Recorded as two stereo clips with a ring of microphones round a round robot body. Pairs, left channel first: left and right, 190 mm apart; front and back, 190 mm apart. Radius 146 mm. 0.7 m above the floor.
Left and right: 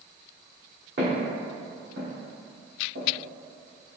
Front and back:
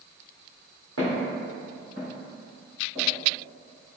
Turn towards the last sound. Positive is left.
turn(degrees=-120)